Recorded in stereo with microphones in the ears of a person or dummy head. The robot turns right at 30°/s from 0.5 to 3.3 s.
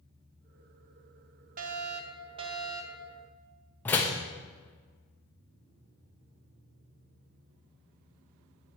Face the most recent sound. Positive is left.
turn(degrees=10)  # may be behind; listen again after turning